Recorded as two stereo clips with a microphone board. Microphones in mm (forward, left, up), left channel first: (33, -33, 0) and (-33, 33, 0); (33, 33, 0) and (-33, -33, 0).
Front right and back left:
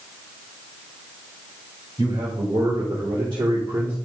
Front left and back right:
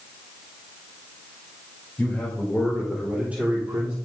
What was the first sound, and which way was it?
A man speaking, 120° left.